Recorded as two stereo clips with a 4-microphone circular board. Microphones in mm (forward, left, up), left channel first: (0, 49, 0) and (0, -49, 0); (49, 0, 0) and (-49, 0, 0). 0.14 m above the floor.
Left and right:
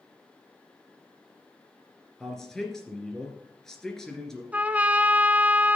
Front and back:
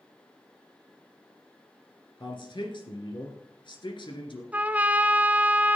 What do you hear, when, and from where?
2.2 s a man speaking: 5° left, 2.5 m
4.5 s a trumpet: 135° right, 0.6 m